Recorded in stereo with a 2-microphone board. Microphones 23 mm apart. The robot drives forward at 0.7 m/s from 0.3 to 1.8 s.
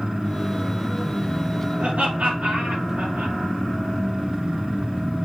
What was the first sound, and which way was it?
Laughter, 85° right.